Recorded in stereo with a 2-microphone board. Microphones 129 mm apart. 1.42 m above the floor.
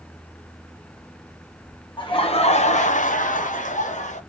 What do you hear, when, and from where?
2.0 s laughter: 40° left (ahead or behind), 0.9 m; by 4.2 s 65° left (ahead or behind), 1.2 m